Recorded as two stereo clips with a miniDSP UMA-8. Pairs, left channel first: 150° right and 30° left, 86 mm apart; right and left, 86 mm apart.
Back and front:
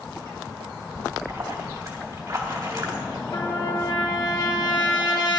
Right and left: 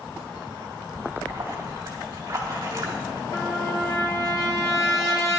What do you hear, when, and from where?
0.9 s a splash: 45° left, 2 m
3.3 s a trumpet: 130° right, 1.6 m